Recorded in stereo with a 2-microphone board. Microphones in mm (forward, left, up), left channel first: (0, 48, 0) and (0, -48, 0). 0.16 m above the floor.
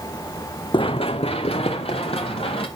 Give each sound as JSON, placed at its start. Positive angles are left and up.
{"t": 0.7, "sound": "running footsteps", "side_deg": 60, "distance_m": 0.6}